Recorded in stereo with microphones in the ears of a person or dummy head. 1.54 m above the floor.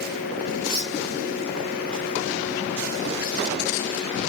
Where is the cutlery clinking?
45° right (ahead or behind), 1.4 m.